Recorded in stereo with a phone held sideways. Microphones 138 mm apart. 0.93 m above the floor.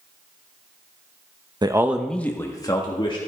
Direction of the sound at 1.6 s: 30° right (ahead or behind).